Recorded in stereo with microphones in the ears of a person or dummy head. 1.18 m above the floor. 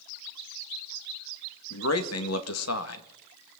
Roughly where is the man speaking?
Left.